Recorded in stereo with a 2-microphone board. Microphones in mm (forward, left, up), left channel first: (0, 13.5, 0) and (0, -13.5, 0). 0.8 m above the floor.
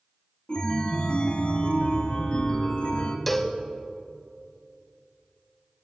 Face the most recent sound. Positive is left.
turn(degrees=5)  # may be behind; listen again after turning